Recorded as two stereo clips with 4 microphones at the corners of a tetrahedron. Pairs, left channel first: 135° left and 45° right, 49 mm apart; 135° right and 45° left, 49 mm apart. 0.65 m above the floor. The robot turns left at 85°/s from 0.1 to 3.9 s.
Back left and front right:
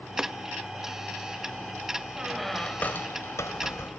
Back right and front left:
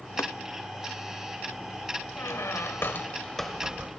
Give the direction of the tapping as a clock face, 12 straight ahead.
4 o'clock.